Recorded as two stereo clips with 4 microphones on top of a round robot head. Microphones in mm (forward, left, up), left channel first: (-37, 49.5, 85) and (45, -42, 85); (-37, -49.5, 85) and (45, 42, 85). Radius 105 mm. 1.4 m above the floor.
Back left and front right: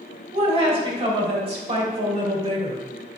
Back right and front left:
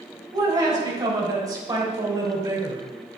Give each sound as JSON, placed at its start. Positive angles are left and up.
{"t": 0.3, "sound": "a woman speaking", "azimuth_deg": -10, "distance_m": 4.0}